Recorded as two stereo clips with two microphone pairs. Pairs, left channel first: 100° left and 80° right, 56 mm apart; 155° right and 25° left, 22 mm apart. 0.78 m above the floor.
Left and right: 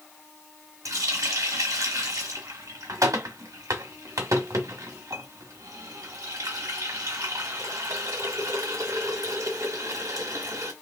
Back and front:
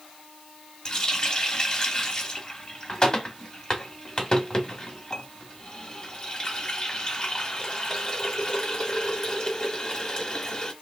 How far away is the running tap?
About 0.8 m.